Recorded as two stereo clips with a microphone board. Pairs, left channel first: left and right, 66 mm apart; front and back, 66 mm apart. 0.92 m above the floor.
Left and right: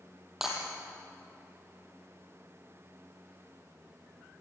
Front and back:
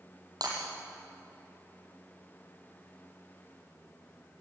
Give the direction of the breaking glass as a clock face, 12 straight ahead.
6 o'clock.